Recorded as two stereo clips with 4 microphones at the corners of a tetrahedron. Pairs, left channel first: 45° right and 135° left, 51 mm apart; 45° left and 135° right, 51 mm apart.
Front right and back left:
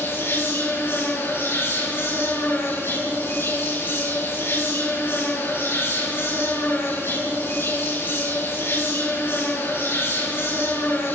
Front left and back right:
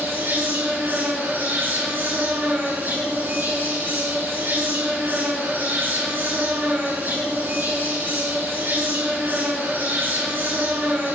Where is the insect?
90° right, 8 m.